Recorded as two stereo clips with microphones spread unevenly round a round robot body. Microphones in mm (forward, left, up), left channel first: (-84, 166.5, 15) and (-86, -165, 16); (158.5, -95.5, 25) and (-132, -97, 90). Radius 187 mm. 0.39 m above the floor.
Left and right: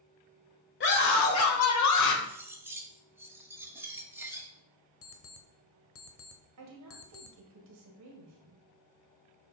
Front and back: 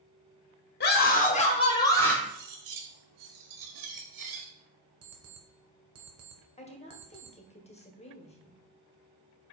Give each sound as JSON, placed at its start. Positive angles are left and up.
{"t": 0.8, "sound": "a scream", "azimuth_deg": 35, "distance_m": 1.4}
{"t": 2.2, "sound": "cutlery clinking", "azimuth_deg": -175, "distance_m": 1.4}
{"t": 5.0, "sound": "an alarm clock", "azimuth_deg": 135, "distance_m": 1.3}
{"t": 6.6, "sound": "a woman speaking", "azimuth_deg": -55, "distance_m": 1.7}